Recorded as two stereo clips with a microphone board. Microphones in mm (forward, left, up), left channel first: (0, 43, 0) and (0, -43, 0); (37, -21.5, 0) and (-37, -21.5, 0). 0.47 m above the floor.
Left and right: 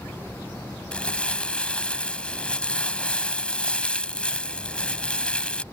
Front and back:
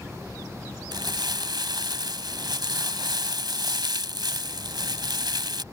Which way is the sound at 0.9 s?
165° left.